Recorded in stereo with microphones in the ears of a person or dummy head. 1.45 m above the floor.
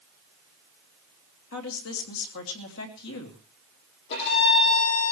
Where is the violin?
60° left (ahead or behind), 9.5 m.